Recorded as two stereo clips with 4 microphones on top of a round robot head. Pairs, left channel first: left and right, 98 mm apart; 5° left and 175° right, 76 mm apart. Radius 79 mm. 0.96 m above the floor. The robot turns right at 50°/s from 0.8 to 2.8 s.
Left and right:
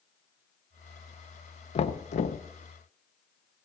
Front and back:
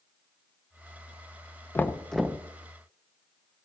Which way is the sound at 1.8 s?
70° left.